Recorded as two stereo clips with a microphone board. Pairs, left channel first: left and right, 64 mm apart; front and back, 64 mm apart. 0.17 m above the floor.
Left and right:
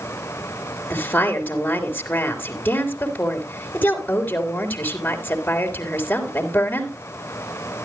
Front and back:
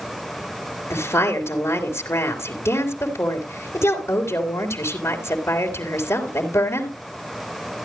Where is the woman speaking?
30° left, 3 m.